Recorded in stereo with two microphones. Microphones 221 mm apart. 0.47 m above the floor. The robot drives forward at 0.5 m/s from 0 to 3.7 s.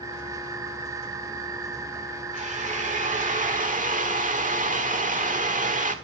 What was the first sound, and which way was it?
A drill, 35° right (ahead or behind).